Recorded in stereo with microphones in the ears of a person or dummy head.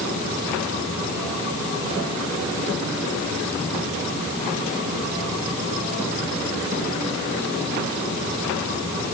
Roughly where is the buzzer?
I don't hear a buzzer.